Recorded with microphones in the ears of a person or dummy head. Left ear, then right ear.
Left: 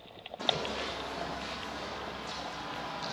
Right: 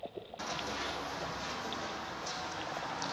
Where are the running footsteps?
55° right (ahead or behind), 4 m; by 3.1 s 80° right, 5 m.